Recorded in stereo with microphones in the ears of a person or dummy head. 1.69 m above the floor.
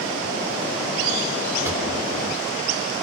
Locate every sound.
1.6 s a drawer: 15° right (ahead or behind), 3.5 m